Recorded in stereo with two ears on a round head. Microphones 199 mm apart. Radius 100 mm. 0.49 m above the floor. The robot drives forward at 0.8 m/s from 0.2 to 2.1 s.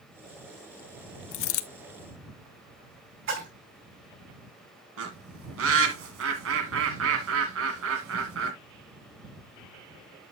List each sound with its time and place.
1.3 s a dropped coin: 55° left (ahead or behind), 0.8 m; by 1.7 s 75° left (ahead or behind), 0.6 m
3.3 s a splash: 55° right (ahead or behind), 6 m
5.0 s a bird: 65° right (ahead or behind), 2 m